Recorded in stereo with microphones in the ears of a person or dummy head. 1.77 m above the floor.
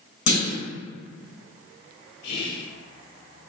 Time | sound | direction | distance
0.3 | a clunk | 45° left (ahead or behind) | 0.9 m
2.2 | whispering | 70° left (ahead or behind) | 0.8 m